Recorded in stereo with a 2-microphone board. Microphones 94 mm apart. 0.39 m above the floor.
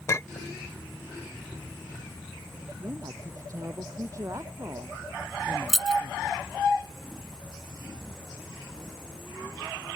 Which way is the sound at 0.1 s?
35° left (ahead or behind).